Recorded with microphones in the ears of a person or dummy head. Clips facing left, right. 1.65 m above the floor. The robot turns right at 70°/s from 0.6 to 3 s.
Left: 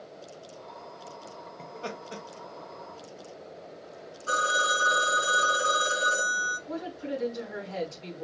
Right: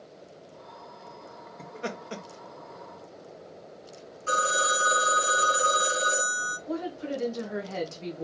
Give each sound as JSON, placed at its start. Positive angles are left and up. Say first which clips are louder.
{"t": 1.6, "sound": "laughter", "louder": "right 3 dB", "side_deg": -10, "distance_m": 1.1}
{"t": 4.3, "sound": "a phone ringing", "louder": "right 2 dB", "side_deg": -50, "distance_m": 1.7}
{"t": 6.7, "sound": "a woman speaking", "louder": "right 2 dB", "side_deg": -45, "distance_m": 1.7}